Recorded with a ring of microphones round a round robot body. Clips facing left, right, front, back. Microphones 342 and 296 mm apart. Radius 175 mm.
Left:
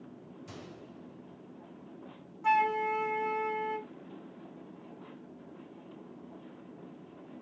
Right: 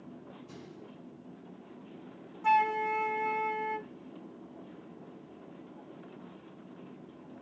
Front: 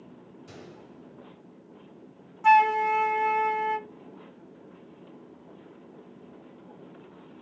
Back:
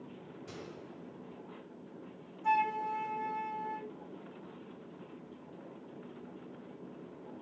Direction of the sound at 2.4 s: Straight ahead.